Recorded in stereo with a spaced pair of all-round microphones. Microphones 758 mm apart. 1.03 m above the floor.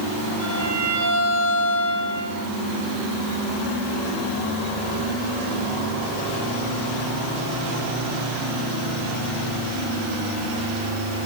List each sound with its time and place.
0.4 s a violin: 75° left (ahead or behind), 6 m